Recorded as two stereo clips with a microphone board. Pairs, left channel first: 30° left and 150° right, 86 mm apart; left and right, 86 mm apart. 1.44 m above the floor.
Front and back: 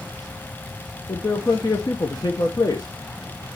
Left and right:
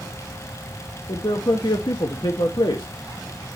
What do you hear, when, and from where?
1.1 s a man speaking: 65° left, 1.1 m